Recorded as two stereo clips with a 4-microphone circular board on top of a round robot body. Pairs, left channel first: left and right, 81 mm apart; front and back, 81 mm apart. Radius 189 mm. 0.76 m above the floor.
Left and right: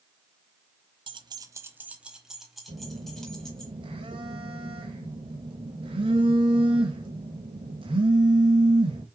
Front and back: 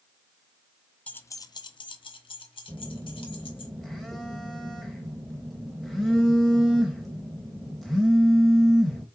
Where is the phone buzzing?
85° right, 0.8 m.